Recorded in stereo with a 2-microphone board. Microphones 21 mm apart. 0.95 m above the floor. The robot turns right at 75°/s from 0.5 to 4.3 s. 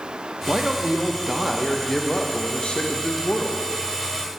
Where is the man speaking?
80° right, 0.6 m; by 3.6 s 155° left, 0.6 m.